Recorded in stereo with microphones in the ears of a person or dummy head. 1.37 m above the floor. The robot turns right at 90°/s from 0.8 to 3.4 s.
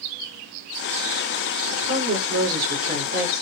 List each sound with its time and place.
1.7 s a woman speaking: 155° right, 4.5 m; by 3.4 s straight ahead, 4.5 m